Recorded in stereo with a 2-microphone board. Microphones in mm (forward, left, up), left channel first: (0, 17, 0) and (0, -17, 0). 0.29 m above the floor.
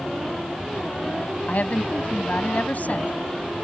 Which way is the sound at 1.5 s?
55° left (ahead or behind).